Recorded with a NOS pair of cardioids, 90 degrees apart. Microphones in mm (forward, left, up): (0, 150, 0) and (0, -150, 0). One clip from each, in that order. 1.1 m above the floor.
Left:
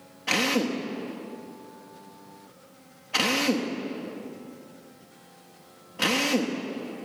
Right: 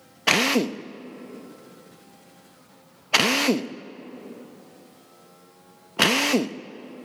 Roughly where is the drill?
Ahead right.